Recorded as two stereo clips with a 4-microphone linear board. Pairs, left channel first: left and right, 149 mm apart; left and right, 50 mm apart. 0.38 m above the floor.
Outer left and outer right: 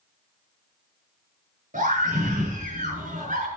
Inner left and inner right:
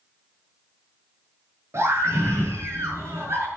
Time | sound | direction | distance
1.7 | a scream | 60° right (ahead or behind) | 6.5 m